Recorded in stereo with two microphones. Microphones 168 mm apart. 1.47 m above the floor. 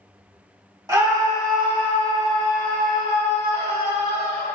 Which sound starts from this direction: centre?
A scream, at 0.9 s.